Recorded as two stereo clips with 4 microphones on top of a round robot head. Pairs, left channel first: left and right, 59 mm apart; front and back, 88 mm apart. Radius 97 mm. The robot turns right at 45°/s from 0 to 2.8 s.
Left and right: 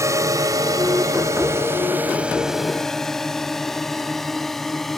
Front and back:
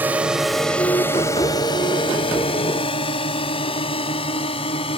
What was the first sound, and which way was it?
A drone, 115° right.